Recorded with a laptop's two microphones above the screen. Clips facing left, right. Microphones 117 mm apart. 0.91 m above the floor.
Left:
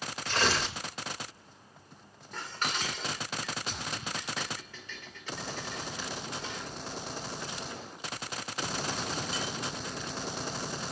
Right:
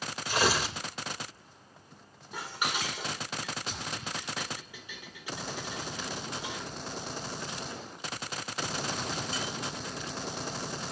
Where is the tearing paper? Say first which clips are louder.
Right 2 dB; 10° right (ahead or behind), 3 m.